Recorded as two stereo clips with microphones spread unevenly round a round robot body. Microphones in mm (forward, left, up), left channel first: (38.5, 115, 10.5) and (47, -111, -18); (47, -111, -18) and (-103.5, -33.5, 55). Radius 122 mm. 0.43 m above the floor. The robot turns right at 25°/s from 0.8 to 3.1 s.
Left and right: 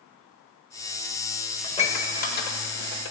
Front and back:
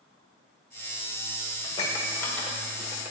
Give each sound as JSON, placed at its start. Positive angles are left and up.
{"t": 1.6, "sound": "dishes clattering", "azimuth_deg": 25, "distance_m": 1.3}